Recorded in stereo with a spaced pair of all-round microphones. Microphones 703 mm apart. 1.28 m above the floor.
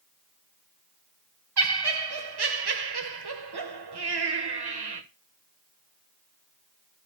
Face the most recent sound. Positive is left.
turn(degrees=-35)  # may be behind; listen again after turning